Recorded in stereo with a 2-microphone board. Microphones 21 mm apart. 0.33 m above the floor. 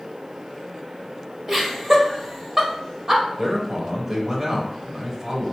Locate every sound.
1.5 s laughter: 20° right (ahead or behind), 1.1 m
3.4 s a man speaking: 30° right (ahead or behind), 1.0 m